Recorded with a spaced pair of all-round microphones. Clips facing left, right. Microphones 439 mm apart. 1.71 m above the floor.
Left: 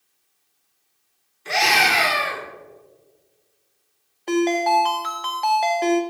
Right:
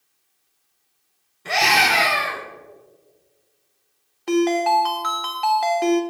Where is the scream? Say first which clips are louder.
Right 1 dB; 75° right (ahead or behind), 2 m.